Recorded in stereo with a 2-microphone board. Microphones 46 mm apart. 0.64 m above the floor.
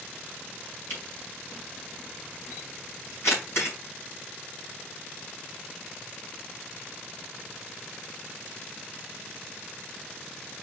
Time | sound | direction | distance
0.9 | a camera shutter | 65° left (ahead or behind) | 5.5 m